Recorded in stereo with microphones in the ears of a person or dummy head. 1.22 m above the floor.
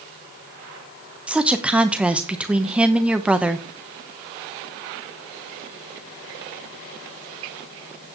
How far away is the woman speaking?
About 0.9 m.